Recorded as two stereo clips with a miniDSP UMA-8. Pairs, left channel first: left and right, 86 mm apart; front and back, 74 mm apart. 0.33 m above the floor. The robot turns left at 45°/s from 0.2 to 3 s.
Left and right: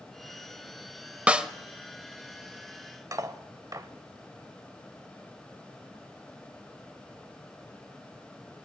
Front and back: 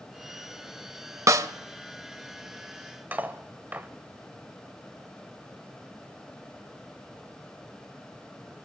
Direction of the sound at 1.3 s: 160° right.